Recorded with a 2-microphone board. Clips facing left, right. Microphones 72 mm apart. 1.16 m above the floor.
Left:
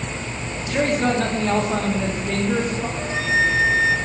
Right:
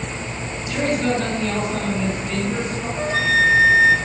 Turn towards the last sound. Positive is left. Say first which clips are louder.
# right 4 dB
turn(degrees=-60)  # may be behind; listen again after turning